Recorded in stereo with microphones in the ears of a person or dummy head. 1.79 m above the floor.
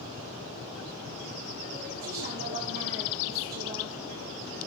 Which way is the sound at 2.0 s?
45° right (ahead or behind).